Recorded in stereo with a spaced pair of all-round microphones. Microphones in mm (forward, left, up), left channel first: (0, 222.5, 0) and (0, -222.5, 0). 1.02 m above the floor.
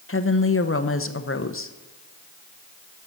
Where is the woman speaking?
30° left (ahead or behind), 0.7 m.